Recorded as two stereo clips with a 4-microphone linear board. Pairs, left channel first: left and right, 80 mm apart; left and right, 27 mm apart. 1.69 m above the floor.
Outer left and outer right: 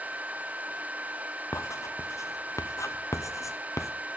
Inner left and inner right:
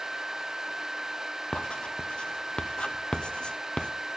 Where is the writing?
40° left (ahead or behind), 0.8 m.